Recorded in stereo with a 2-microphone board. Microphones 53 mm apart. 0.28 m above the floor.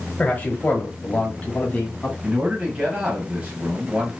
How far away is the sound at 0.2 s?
About 1.2 m.